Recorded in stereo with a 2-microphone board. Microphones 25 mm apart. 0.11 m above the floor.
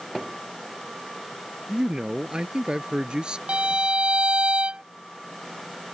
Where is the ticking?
I don't hear ticking.